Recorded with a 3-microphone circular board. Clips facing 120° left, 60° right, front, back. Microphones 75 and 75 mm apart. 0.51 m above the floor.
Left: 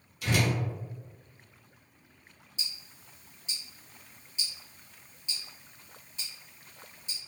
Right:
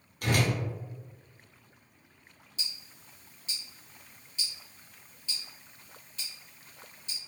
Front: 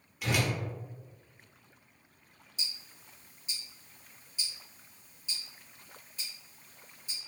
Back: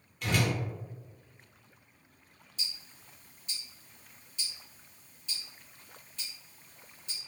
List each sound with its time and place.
0.2 s a whoosh: 85° right, 0.7 m
2.6 s ticking: 70° left, 1.4 m